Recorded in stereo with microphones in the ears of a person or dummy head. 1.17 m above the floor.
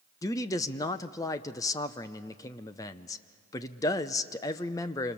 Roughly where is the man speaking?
Centre.